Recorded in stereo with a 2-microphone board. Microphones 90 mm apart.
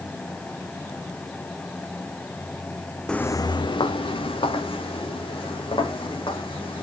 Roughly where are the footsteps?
Centre.